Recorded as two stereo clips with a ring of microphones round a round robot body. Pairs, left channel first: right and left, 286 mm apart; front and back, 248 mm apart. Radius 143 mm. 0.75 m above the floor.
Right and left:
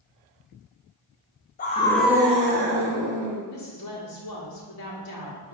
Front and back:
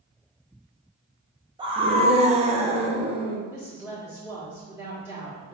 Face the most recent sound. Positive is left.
turn(degrees=-100)